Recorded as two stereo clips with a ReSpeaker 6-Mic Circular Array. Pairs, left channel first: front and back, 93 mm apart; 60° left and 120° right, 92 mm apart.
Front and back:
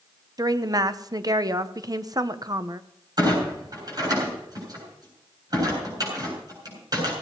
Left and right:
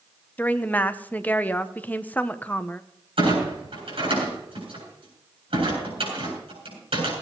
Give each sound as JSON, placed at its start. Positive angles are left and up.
{"t": 0.4, "sound": "a woman speaking", "azimuth_deg": 130, "distance_m": 1.0}
{"t": 3.2, "sound": "a clunk", "azimuth_deg": -135, "distance_m": 7.5}